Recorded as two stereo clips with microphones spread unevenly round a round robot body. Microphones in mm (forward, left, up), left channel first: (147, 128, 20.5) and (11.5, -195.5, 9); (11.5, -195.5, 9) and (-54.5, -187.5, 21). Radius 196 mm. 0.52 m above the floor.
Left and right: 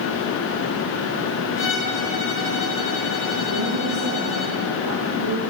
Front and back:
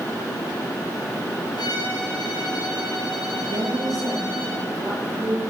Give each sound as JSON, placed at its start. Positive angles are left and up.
{"t": 1.6, "sound": "a violin", "azimuth_deg": 10, "distance_m": 5.5}
{"t": 3.5, "sound": "a woman speaking", "azimuth_deg": -160, "distance_m": 9.5}